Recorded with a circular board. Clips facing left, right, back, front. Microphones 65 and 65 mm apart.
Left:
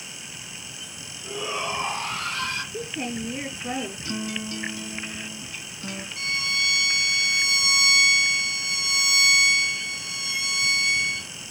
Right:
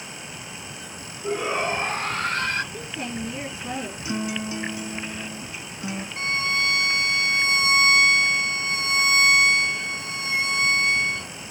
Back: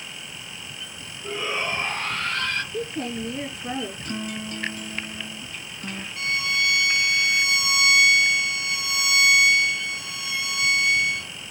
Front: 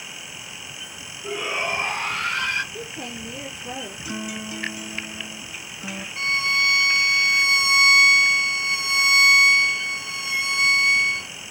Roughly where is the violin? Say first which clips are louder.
Right 3 dB, front 3 dB; ahead right.